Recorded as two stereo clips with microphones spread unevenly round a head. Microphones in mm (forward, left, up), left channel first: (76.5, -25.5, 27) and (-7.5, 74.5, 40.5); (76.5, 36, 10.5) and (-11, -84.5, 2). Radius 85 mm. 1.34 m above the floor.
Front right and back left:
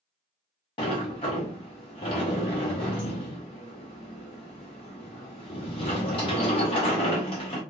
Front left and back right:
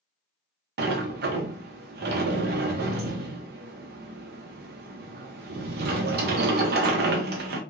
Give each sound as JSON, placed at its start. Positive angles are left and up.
{"t": 0.8, "sound": "a sliding door", "azimuth_deg": -110, "distance_m": 0.6}